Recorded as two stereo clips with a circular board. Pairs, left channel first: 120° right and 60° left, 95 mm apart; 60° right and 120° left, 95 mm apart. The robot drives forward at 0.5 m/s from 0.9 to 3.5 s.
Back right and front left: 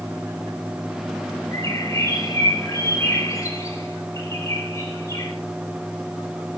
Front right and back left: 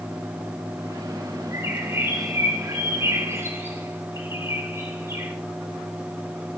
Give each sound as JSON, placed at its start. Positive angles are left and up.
{"t": 1.5, "sound": "a bird", "azimuth_deg": -175, "distance_m": 6.5}